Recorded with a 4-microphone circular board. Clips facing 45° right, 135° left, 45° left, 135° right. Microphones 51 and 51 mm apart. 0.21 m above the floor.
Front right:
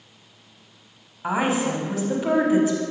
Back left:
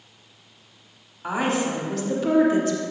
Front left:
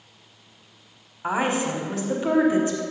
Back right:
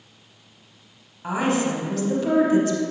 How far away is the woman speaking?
About 1.0 m.